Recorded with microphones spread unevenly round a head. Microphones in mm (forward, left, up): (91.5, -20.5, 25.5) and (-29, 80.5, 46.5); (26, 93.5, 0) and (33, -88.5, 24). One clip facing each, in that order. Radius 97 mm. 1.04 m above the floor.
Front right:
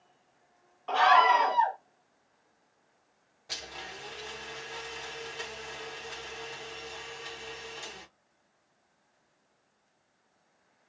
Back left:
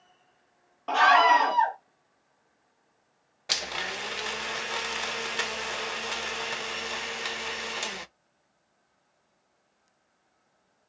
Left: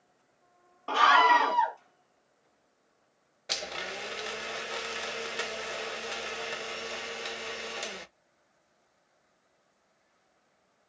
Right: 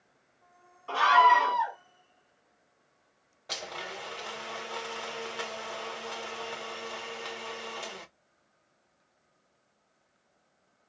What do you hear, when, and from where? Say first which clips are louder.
0.9 s a scream: back left 2 dB, right 1 dB; 105° left, 1.6 m
3.5 s a blender: back left 8 dB, left 1 dB; 155° left, 0.5 m